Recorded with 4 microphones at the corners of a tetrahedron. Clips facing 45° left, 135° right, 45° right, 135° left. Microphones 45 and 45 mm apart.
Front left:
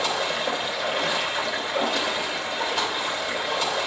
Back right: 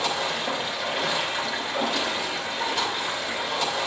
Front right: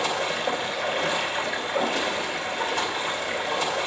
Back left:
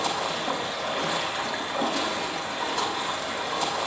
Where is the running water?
40° right, 2.5 m.